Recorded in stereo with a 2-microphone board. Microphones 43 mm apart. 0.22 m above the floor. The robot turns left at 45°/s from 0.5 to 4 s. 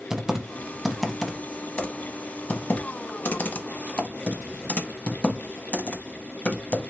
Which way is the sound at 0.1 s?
15° right (ahead or behind).